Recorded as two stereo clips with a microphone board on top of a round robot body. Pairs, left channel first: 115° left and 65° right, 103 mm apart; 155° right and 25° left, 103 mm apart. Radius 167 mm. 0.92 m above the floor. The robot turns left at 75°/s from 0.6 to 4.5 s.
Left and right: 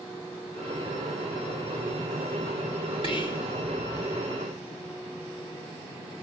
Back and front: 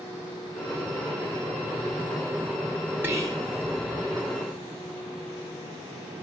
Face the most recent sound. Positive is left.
turn(degrees=-20)